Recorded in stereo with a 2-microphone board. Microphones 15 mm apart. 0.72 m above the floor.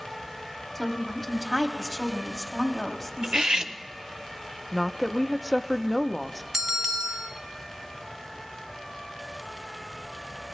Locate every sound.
0.8 s a woman speaking: 10° left (ahead or behind), 1.7 m
3.2 s cutlery clinking: 65° right (ahead or behind), 0.6 m
4.7 s a woman speaking: 5° left (ahead or behind), 0.6 m
6.5 s a bell: 35° right (ahead or behind), 0.9 m